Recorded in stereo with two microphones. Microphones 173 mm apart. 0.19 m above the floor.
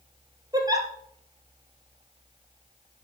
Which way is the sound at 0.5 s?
20° right (ahead or behind).